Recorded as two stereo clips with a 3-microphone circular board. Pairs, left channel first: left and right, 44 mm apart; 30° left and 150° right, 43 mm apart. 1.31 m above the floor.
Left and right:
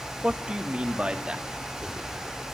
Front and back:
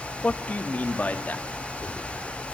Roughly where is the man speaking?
Ahead right.